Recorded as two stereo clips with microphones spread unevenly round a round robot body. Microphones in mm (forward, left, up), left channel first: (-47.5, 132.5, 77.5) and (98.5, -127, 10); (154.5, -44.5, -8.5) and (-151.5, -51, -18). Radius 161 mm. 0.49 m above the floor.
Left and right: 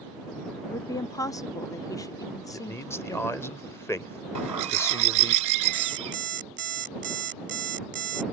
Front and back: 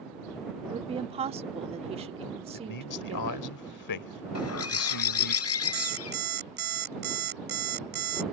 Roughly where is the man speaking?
Ahead left.